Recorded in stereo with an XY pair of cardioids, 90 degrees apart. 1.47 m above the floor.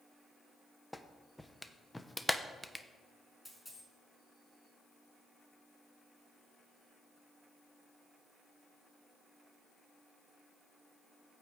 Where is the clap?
10° left, 0.8 m.